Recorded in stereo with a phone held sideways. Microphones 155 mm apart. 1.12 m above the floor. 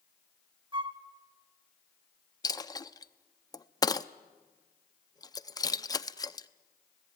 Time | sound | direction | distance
0.7 | a flute | 30° right (ahead or behind) | 1.0 m
2.4 | a dropped coin | 25° left (ahead or behind) | 0.5 m